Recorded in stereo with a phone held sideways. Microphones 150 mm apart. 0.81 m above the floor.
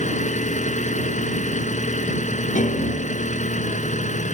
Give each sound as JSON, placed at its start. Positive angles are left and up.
{"t": 0.0, "sound": "an engine running", "side_deg": 60}
{"t": 2.5, "sound": "a piano", "side_deg": 60}